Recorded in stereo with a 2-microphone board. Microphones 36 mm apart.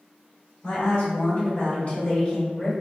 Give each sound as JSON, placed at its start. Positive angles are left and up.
{"t": 0.6, "sound": "a woman speaking", "side_deg": 60, "distance_m": 1.9}